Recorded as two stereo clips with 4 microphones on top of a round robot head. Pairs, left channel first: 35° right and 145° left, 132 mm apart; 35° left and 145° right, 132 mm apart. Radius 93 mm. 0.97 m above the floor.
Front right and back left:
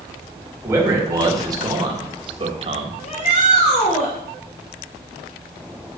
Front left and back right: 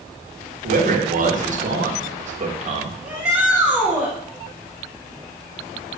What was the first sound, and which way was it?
A man speaking, 145° right.